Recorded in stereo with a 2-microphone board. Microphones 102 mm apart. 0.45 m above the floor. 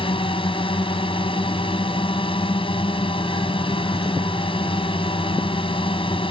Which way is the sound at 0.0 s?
55° left (ahead or behind).